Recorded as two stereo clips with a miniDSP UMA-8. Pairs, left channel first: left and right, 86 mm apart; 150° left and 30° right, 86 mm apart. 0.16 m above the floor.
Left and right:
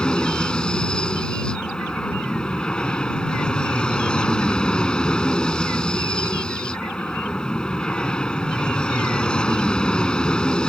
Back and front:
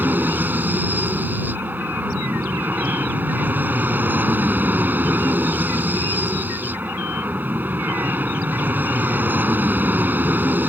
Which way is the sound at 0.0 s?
20° left.